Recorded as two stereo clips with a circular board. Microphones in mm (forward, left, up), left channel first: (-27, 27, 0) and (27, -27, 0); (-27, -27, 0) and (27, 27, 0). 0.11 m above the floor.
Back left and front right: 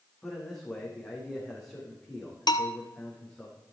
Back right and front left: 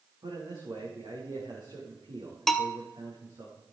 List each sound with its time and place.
0.2 s a man speaking: 50° left, 6 m
2.5 s a bell: 140° left, 0.9 m